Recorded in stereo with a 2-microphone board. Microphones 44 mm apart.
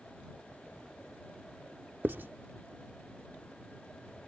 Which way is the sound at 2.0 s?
55° right (ahead or behind).